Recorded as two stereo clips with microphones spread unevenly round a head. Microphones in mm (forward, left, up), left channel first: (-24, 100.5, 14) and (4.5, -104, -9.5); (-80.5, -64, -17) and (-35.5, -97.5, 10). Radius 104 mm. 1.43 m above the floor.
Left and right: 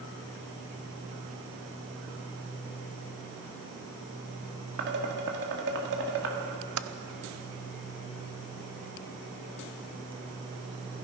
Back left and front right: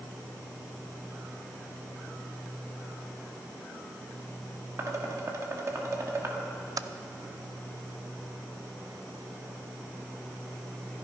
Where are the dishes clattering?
45° right, 1.7 m.